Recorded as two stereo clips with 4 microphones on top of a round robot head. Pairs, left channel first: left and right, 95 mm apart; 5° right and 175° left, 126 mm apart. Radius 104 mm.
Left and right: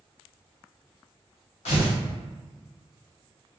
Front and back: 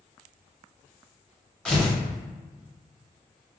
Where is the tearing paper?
80° left, 0.9 m.